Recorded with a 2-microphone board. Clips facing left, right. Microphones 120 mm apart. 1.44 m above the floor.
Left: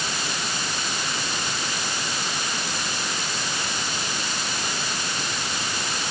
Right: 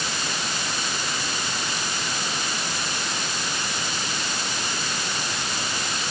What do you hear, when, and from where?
Only background noise.